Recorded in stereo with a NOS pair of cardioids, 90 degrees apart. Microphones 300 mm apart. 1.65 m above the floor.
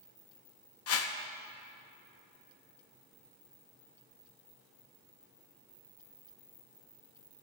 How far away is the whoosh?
About 0.9 m.